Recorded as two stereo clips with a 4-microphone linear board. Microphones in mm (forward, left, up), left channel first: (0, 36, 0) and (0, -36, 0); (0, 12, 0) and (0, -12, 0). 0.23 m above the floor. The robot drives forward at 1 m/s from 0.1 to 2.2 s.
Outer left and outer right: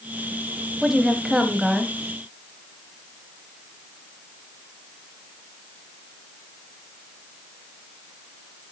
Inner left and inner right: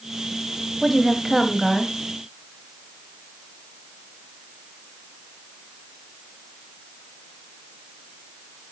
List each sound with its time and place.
0.8 s a woman speaking: 5° right (ahead or behind), 1.1 m